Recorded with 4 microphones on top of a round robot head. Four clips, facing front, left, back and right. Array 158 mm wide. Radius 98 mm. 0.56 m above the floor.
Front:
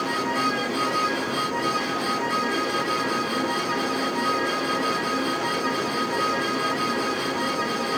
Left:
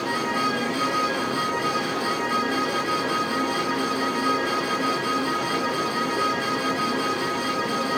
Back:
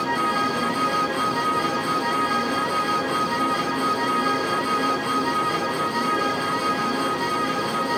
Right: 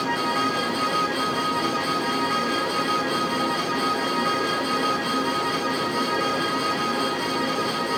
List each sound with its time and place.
Only background noise.